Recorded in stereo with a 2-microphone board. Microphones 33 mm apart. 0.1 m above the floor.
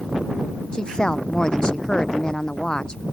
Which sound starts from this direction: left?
A woman speaking, at 0.7 s.